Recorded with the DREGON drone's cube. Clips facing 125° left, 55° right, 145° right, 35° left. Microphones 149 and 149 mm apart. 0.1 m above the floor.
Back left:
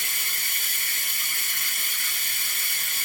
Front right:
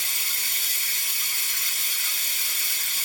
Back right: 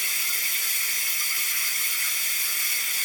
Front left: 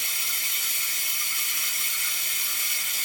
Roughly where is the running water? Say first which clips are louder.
Back left 2 dB, back right 1 dB; left.